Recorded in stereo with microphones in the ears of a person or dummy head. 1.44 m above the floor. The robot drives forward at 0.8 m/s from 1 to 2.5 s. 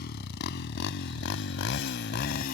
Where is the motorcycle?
65° left (ahead or behind); by 2.5 s 40° left (ahead or behind).